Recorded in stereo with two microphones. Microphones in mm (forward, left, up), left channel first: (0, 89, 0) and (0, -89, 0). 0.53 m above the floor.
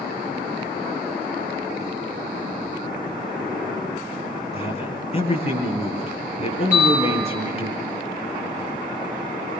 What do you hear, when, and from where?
4.5 s a man speaking: 35° left (ahead or behind), 8.5 m
6.7 s a bell: 10° right (ahead or behind), 9.5 m